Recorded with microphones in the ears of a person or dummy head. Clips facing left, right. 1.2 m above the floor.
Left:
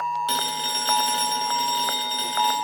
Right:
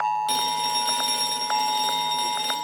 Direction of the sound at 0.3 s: 10° left (ahead or behind).